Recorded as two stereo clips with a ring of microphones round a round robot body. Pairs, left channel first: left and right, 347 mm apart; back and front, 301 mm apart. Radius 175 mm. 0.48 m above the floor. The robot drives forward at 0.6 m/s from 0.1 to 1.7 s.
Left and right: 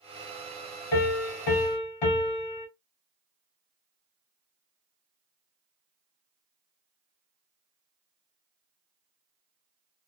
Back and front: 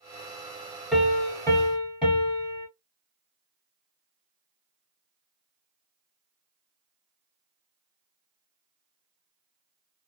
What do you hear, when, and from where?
0.9 s a piano: 90° left, 1.5 m; by 2.7 s 105° left, 1.6 m